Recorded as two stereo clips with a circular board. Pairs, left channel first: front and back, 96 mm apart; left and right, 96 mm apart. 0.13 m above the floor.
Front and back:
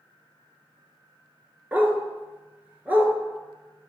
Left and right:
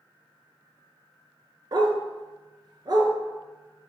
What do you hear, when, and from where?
1.7 s a dog barking: 110° right, 0.5 m